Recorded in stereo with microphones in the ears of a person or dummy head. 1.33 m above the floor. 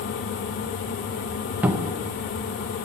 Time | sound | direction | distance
1.6 | a cupboard door | 15° right (ahead or behind) | 0.5 m